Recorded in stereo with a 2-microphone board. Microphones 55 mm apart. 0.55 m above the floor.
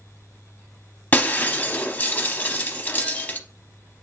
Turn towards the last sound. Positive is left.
turn(degrees=30)  # may be behind; listen again after turning